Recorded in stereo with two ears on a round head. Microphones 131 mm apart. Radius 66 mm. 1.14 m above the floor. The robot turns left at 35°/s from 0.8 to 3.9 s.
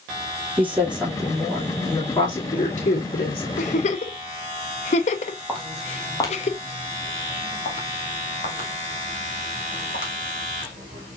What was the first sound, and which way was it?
A woman speaking, 165° right.